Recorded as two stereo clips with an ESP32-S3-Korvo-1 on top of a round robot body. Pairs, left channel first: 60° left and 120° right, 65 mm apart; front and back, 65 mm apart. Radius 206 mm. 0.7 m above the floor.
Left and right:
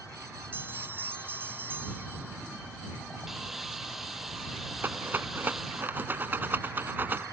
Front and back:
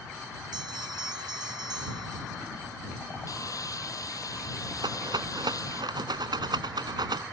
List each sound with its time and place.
0.5 s a bell: straight behind
3.3 s sawing: 35° right
4.8 s a rattle: straight behind